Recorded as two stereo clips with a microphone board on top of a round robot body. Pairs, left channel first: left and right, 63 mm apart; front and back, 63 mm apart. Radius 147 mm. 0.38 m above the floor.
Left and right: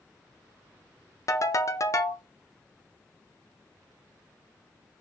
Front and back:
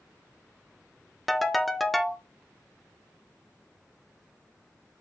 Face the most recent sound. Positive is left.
turn(degrees=90)